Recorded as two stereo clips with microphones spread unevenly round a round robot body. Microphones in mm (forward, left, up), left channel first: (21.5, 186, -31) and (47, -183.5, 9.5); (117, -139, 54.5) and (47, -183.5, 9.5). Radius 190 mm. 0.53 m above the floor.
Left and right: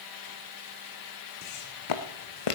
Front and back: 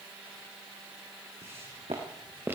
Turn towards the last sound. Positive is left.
turn(degrees=120)